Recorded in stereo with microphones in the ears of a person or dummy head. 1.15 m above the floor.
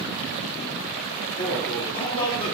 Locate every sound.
1.4 s a man speaking: 20° left (ahead or behind), 0.7 m